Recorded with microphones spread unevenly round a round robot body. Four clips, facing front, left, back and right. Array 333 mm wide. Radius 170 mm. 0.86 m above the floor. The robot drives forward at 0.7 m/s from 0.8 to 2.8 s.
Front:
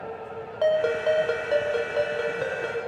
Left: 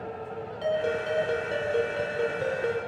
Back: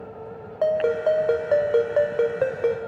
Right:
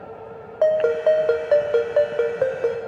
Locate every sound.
0.6 s a ringtone: 80° right, 3 m; by 2.8 s 110° right, 3 m